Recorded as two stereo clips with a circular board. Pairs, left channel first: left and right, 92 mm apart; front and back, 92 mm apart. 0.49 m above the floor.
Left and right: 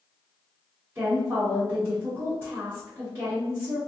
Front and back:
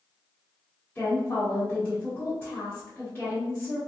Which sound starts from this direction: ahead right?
A woman speaking, at 0.9 s.